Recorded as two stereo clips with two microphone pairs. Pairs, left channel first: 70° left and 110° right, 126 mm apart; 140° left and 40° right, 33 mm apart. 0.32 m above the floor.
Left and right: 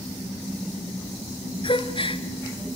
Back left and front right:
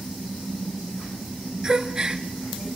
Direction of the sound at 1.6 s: 25° left.